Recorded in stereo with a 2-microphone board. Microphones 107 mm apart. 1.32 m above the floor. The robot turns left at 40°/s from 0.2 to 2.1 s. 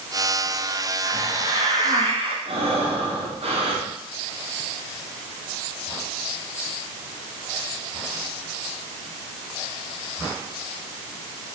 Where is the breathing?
70° right (ahead or behind), 3 m.